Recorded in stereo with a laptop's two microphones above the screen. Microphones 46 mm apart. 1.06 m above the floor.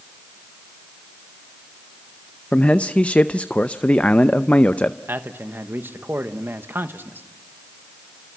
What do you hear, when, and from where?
2.5 s a man speaking: 30° left (ahead or behind), 0.6 m
5.1 s a man speaking: 55° right (ahead or behind), 1.3 m